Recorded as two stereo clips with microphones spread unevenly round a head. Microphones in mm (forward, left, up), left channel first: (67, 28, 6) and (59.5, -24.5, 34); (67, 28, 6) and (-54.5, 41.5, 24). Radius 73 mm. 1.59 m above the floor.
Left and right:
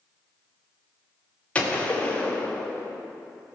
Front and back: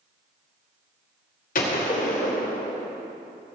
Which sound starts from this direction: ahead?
A gunshot, at 1.6 s.